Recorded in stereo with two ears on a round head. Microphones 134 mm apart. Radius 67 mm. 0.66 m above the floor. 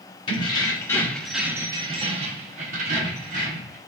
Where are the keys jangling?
35° left (ahead or behind), 0.8 m; by 3.8 s 55° right (ahead or behind), 1.3 m.